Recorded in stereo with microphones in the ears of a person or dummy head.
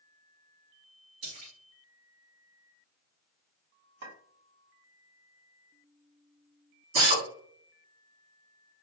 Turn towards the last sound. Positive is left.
turn(degrees=-40)  # may be behind; listen again after turning